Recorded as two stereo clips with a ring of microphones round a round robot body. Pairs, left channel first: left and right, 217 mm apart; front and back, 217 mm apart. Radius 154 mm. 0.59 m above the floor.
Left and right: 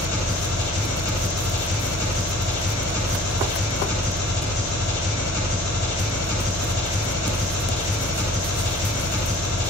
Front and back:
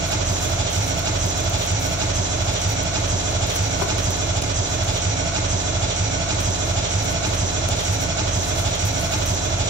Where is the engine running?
150° left, 1.9 m.